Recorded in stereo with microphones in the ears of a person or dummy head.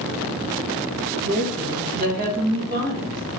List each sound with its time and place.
1.2 s a woman speaking: 50° right (ahead or behind), 2.5 m